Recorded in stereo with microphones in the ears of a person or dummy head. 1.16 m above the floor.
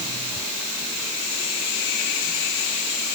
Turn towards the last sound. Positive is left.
No sound to turn to.